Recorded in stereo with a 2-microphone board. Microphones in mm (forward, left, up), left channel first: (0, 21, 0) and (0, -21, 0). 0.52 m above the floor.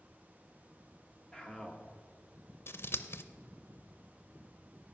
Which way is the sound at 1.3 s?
15° left (ahead or behind).